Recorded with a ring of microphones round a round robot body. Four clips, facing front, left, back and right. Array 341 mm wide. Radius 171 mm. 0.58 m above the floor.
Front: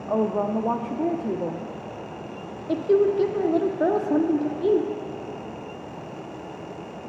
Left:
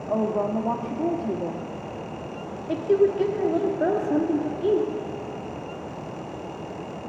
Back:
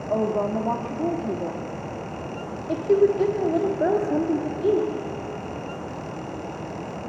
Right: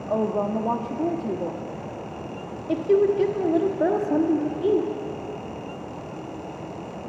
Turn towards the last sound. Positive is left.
turn(degrees=-30)